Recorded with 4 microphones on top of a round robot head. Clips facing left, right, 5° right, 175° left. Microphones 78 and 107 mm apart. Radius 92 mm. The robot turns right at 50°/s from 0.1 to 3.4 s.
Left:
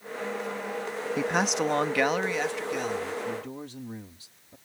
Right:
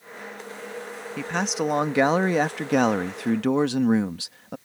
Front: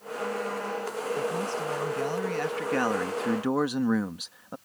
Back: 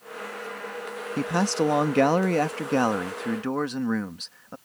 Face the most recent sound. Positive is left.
turn(degrees=-85)